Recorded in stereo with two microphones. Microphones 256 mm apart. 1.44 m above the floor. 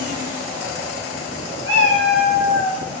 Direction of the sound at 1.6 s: 30° left (ahead or behind).